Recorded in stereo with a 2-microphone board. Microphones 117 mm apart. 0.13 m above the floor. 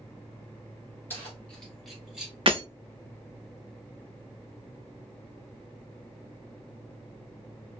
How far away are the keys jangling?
About 1.6 m.